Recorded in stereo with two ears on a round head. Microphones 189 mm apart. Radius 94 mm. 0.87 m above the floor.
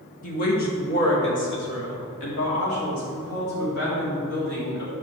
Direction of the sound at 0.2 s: 40° left (ahead or behind).